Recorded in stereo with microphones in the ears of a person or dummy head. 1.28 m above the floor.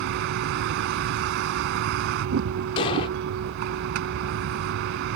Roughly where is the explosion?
Left.